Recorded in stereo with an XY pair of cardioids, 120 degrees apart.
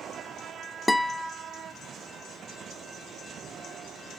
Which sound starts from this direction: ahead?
A guitar, at 0.9 s.